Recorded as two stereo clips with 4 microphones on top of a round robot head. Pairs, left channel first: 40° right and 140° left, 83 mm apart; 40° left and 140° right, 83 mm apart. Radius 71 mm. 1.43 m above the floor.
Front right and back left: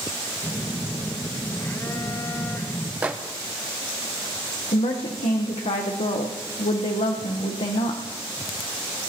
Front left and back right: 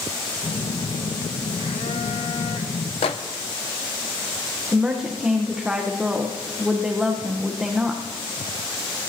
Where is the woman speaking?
55° right, 1.1 m.